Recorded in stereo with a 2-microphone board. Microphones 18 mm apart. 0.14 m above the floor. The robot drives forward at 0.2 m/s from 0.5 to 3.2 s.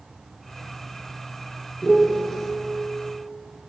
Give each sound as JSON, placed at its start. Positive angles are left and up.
{"t": 1.8, "sound": "a piano", "side_deg": 20, "distance_m": 0.6}